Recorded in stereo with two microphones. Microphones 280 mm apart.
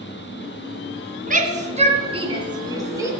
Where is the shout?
30° right (ahead or behind), 2 m; by 3.1 s 10° right (ahead or behind), 2.5 m.